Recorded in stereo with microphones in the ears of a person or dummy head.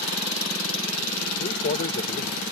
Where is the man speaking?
50° left (ahead or behind).